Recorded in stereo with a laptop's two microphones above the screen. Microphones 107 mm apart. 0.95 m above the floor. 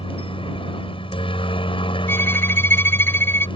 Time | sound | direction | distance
0.0 | a helicopter | 55° left (ahead or behind) | ?
2.1 | a violin | 20° left (ahead or behind) | ?